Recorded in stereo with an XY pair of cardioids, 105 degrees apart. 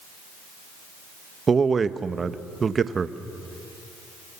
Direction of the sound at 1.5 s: 35° right.